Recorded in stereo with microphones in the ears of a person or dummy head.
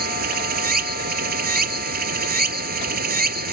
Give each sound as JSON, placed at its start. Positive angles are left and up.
{"t": 0.0, "sound": "running water", "side_deg": -50}